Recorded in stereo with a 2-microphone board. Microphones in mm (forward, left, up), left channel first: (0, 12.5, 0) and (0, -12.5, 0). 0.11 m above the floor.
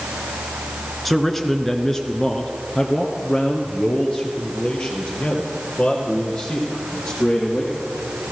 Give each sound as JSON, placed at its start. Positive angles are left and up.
{"t": 1.1, "sound": "a man speaking", "side_deg": 5, "distance_m": 1.4}